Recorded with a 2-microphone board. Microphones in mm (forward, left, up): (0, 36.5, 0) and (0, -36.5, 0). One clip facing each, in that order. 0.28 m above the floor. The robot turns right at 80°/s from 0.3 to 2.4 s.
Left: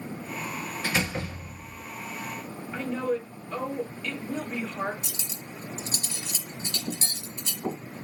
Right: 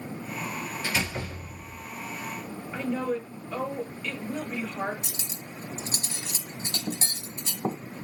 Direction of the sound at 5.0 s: 50° right (ahead or behind).